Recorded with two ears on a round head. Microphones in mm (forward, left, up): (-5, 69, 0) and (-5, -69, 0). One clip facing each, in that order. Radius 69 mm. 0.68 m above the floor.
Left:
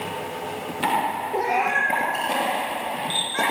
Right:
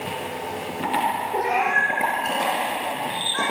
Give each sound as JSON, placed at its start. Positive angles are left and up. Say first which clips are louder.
{"t": 1.3, "sound": "a cat meowing", "louder": "left 2 dB", "side_deg": 10, "distance_m": 5.5}